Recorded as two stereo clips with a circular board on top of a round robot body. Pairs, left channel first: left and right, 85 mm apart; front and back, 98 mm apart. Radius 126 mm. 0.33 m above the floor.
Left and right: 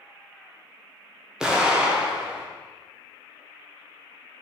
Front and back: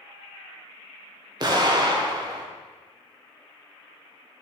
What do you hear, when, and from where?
1.4 s an explosion: 170° right, 1.9 m